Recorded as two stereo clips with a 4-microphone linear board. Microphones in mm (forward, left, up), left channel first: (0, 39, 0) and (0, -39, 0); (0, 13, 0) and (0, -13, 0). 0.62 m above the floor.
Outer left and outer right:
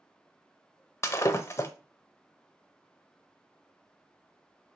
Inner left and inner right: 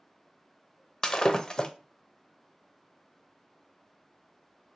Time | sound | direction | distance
1.0 | breaking glass | 35° left (ahead or behind) | 0.6 m